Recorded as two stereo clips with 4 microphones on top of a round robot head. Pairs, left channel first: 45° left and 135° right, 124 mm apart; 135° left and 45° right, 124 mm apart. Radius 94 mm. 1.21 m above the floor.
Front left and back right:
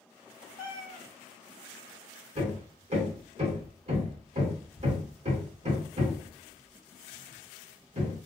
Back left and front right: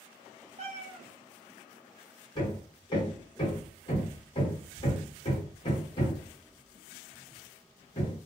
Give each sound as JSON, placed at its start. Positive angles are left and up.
{"t": 0.6, "sound": "a cat meowing", "azimuth_deg": -15, "distance_m": 0.7}
{"t": 2.4, "sound": "hammering", "azimuth_deg": -170, "distance_m": 1.3}